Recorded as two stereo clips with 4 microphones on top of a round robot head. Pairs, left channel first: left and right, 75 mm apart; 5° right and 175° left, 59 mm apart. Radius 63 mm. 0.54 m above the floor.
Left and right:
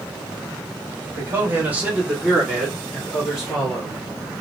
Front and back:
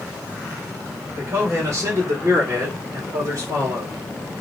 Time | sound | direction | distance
1.1 | a man speaking | 145° right | 1.7 m